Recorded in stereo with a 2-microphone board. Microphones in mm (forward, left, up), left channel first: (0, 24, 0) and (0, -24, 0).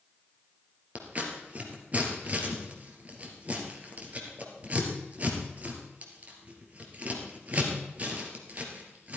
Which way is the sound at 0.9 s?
30° right (ahead or behind).